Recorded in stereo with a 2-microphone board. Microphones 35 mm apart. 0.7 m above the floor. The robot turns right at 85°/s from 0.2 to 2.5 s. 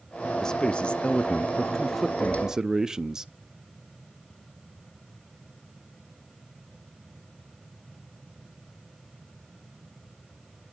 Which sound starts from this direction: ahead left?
A man speaking, at 0.4 s.